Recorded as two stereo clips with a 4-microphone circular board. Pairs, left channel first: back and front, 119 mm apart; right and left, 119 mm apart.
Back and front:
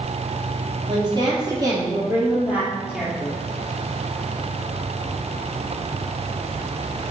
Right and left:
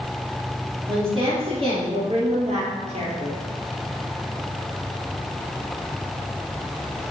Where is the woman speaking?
35° left, 3 m; by 3.3 s 95° left, 2.5 m.